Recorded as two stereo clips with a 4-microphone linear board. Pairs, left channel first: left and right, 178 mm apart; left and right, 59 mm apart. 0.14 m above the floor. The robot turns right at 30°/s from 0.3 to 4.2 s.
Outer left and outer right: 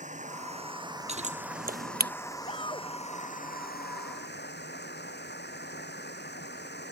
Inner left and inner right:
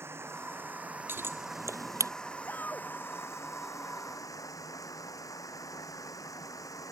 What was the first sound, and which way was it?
Running water, 45° right.